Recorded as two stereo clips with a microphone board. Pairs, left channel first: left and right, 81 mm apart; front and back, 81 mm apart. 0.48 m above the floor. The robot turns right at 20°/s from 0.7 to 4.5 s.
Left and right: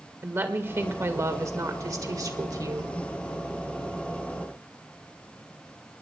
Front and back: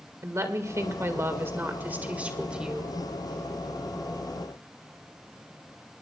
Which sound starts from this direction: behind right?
A woman speaking, at 0.2 s.